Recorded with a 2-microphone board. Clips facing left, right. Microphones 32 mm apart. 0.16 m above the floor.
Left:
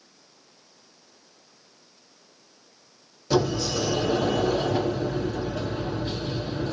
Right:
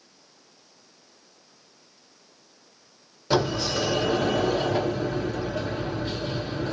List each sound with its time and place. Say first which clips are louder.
3.3 s a sliding door: even; 30° right (ahead or behind), 2 m